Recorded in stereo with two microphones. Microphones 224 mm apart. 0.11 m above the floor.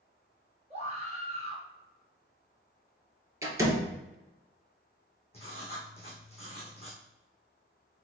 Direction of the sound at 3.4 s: 15° right (ahead or behind).